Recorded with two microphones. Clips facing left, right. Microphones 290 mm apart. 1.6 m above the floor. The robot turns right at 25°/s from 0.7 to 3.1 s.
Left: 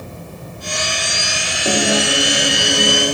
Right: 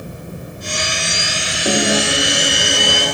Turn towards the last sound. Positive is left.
turn(degrees=30)